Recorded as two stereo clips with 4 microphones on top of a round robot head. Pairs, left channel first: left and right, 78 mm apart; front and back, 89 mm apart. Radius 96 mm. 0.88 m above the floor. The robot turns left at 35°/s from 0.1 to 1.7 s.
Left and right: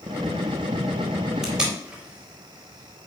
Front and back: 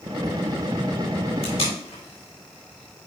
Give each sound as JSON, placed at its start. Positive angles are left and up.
{"t": 1.4, "sound": "tape being pulled", "azimuth_deg": -5, "distance_m": 3.5}